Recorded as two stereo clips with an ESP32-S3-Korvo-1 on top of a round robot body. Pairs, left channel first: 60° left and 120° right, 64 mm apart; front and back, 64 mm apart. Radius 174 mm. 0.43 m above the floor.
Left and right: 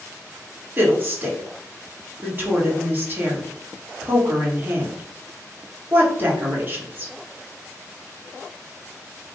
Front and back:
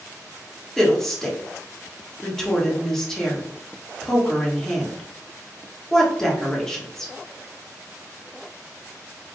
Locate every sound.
0.8 s a woman speaking: 80° right, 1.5 m